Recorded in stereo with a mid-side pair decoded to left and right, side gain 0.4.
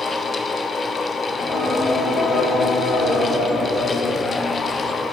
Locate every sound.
0.0 s a fan: 35° left, 0.8 m
1.3 s singing: 65° left, 3.5 m